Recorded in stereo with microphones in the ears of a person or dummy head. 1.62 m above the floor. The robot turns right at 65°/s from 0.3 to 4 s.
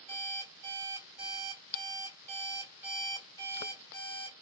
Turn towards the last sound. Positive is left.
turn(degrees=60)